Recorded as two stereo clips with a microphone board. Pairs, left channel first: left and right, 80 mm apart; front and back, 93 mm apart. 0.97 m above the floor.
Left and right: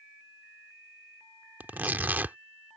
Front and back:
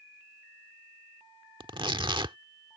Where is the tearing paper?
155° right.